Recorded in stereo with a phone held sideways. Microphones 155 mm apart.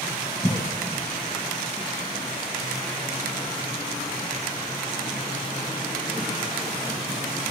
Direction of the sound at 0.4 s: 25° left (ahead or behind).